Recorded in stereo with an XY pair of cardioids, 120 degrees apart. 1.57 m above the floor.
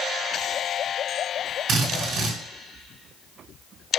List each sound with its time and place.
1.7 s a drill: 55° right, 1.7 m